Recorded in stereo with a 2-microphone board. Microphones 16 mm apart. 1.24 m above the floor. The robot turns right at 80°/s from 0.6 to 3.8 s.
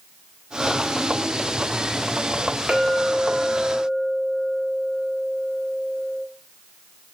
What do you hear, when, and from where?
2.7 s a clink: 95° right, 1.5 m; by 6.2 s 5° right, 1.5 m